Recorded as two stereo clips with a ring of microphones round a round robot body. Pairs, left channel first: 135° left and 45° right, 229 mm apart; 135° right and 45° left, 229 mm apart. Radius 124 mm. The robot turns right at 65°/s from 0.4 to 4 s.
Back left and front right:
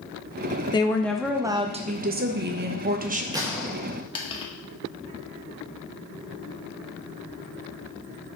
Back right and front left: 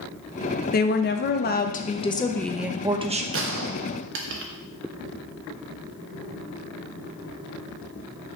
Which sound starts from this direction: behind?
A woman speaking, at 0.7 s.